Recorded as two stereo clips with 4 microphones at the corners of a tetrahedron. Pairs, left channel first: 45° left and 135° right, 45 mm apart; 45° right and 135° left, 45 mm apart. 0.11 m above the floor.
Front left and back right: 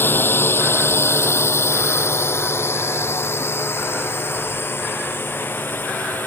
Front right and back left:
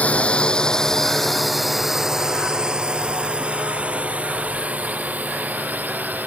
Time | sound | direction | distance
0.0 | a drone | 10° left | ?